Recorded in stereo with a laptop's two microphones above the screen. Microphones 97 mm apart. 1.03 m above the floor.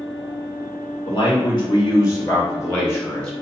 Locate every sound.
1.1 s a man speaking: 55° left (ahead or behind), 1.6 m; by 3.3 s 15° left (ahead or behind), 1.9 m